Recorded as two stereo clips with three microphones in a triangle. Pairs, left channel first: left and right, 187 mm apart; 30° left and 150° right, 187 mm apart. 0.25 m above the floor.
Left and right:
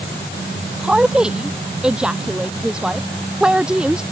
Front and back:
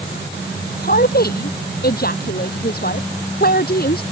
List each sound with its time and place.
0.8 s a woman speaking: 5° right